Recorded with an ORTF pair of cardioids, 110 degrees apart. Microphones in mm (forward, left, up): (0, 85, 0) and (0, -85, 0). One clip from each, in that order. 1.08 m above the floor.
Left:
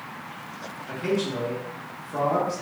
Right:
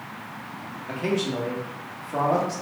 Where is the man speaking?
25° right, 1.4 m.